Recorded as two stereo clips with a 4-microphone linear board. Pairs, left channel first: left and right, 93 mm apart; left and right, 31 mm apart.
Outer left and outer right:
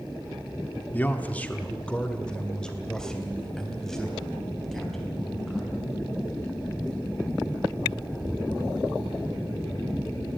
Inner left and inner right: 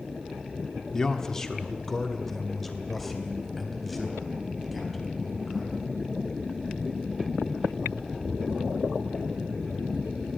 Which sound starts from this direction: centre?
A man speaking, at 0.9 s.